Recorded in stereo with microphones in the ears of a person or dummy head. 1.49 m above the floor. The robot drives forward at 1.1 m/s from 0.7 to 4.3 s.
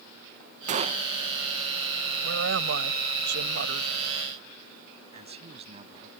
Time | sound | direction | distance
0.7 | a gunshot | 40° right (ahead or behind) | ?
2.2 | a woman speaking | 70° right (ahead or behind) | ?
5.1 | a man speaking | 35° right (ahead or behind) | ?